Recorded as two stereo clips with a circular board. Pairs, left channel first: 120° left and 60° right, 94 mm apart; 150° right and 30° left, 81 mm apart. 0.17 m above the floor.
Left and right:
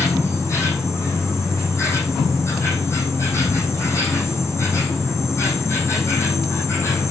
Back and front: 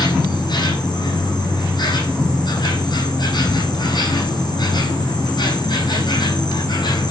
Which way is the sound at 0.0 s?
175° right.